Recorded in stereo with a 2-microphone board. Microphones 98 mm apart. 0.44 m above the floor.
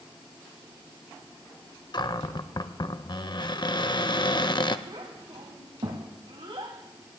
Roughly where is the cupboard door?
Left.